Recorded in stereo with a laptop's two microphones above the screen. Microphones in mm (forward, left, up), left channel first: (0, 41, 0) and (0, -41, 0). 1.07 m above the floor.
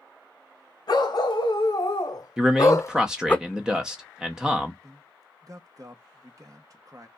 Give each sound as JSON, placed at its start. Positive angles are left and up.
{"t": 0.9, "sound": "a dog barking", "side_deg": 60, "distance_m": 1.9}
{"t": 2.4, "sound": "a man speaking", "side_deg": -10, "distance_m": 0.8}
{"t": 4.8, "sound": "a man speaking", "side_deg": -45, "distance_m": 0.9}